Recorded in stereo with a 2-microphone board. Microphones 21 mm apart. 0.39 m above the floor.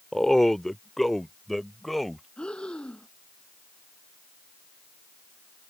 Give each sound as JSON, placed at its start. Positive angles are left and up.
{"t": 0.1, "sound": "a man speaking", "side_deg": 15}
{"t": 2.4, "sound": "breathing", "side_deg": 55}